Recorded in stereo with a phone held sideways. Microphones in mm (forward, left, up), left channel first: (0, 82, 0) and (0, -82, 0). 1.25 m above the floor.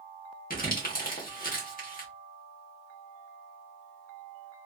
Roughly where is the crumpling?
Left.